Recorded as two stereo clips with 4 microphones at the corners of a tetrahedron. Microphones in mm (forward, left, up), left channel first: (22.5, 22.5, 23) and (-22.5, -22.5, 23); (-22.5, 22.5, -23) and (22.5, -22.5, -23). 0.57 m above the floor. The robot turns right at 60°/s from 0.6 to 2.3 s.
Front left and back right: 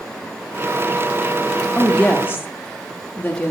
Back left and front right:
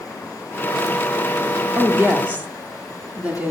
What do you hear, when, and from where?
1.8 s a woman speaking: 25° right, 0.9 m; by 3.5 s 5° left, 0.9 m